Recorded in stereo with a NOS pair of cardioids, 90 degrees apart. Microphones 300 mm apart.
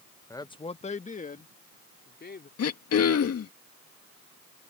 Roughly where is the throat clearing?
Ahead left.